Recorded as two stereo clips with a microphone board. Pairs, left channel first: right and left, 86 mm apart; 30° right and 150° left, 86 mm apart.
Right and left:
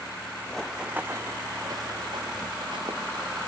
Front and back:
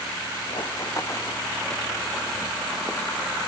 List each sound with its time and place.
0.5 s running footsteps: 10° right, 1.0 m; by 3.4 s 65° left, 3.5 m